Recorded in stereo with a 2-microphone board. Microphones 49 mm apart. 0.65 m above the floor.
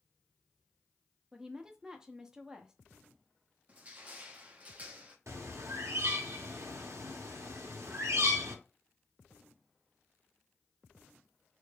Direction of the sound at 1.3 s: 10° right (ahead or behind).